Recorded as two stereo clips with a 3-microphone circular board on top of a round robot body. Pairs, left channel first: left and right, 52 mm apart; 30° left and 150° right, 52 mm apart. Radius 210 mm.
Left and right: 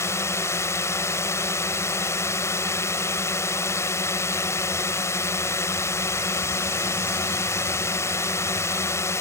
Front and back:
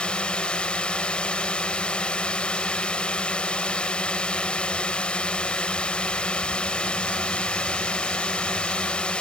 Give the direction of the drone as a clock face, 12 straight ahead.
9 o'clock.